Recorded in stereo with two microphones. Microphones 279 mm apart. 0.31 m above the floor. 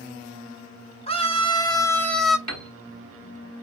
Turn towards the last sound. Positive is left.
turn(degrees=75)  # may be behind; listen again after turning